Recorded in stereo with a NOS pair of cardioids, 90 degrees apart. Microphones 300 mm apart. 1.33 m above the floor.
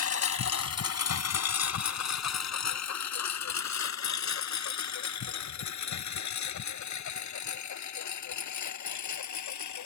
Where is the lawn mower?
50° left; by 9.9 s 60° left.